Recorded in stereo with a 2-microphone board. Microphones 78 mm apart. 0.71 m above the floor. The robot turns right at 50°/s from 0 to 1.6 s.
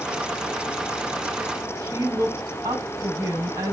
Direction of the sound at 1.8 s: 40° right (ahead or behind).